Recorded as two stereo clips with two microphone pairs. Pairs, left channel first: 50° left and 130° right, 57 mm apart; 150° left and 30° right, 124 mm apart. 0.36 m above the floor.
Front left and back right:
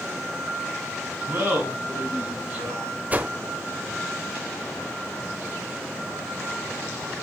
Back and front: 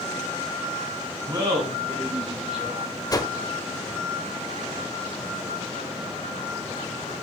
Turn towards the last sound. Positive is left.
turn(degrees=-175)